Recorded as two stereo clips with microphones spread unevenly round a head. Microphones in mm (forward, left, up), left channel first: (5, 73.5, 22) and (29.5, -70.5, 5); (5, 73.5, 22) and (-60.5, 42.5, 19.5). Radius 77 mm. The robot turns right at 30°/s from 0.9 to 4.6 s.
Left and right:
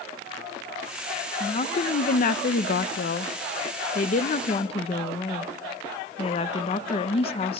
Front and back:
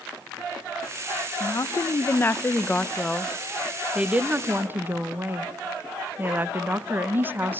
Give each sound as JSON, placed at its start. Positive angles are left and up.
{"t": 1.4, "sound": "a woman speaking", "azimuth_deg": 55, "distance_m": 0.9}